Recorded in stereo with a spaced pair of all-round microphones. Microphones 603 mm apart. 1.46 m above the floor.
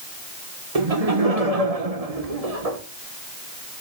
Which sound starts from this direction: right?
Laughter, at 0.8 s.